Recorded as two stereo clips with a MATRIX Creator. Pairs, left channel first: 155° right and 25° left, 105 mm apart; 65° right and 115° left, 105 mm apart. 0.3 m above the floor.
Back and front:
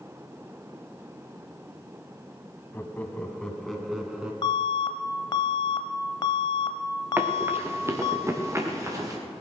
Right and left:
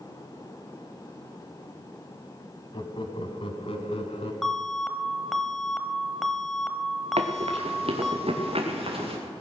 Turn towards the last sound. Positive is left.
turn(degrees=85)